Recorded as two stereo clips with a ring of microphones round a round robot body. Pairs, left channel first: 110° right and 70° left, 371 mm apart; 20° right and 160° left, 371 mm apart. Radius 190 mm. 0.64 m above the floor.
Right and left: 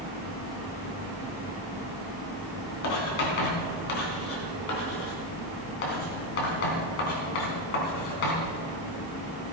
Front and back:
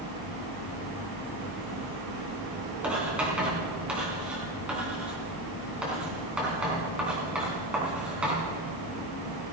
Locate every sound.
2.8 s writing: 115° right, 3.5 m